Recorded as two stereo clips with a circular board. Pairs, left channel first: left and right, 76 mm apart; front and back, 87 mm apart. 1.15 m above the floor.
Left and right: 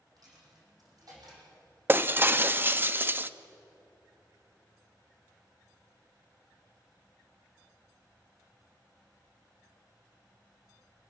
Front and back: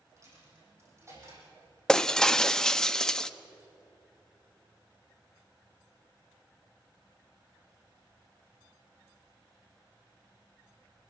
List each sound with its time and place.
0.2 s a dropped coin: 125° right, 8 m
1.9 s breaking glass: 70° right, 0.5 m